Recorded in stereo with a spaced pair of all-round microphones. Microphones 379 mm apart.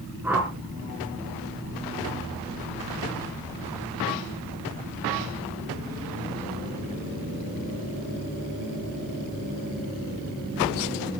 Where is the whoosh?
5° right (ahead or behind), 4.5 m.